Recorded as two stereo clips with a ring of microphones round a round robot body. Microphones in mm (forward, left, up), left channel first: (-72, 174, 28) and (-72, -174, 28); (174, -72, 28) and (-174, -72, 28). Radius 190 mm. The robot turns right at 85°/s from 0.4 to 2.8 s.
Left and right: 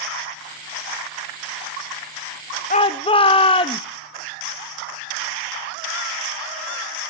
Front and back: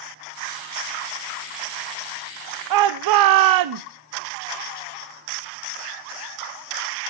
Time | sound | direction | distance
2.7 | a shout | 155° left | 0.7 m